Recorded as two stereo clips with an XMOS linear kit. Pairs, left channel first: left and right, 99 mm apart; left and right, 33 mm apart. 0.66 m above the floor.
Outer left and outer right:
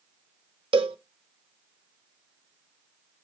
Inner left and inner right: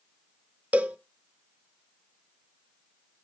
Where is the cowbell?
60° right (ahead or behind), 1.1 m.